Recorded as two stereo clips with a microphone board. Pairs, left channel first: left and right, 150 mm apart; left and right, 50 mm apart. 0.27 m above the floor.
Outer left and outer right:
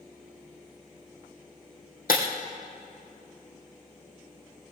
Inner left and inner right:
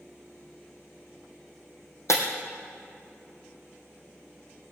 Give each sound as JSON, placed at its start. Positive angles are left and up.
{"t": 2.1, "sound": "breaking glass", "side_deg": 70, "distance_m": 3.0}